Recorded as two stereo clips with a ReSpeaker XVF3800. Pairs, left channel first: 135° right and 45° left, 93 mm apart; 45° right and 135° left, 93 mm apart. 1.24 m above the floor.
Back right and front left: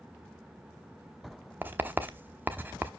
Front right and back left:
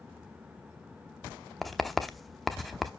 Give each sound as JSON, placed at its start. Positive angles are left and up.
{"t": 1.6, "sound": "writing", "azimuth_deg": 45, "distance_m": 0.8}